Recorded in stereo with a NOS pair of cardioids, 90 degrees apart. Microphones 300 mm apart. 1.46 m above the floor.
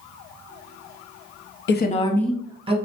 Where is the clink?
No clink in this recording.